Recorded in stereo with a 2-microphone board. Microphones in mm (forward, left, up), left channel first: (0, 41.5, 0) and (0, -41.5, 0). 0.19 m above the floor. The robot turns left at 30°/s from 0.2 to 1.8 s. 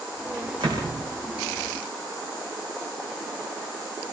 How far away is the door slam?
About 9 m.